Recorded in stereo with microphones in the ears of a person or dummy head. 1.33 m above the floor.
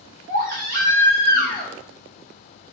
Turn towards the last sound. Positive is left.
turn(degrees=-50)  # may be behind; listen again after turning